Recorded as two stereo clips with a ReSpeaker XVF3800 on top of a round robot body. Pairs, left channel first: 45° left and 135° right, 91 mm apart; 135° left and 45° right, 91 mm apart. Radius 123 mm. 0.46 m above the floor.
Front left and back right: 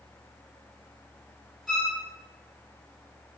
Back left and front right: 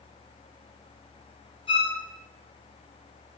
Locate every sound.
1.7 s a violin: 140° left, 2 m